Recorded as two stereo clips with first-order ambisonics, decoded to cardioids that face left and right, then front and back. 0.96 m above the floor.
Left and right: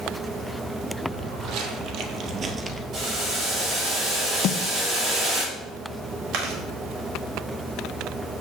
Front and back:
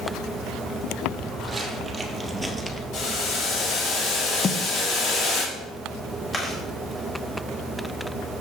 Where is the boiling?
35° right, 4 m.